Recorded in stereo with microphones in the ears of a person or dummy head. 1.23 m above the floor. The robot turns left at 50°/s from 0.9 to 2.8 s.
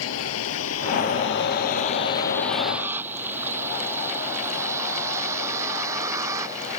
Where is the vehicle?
80° left; by 6.8 s 20° right (ahead or behind).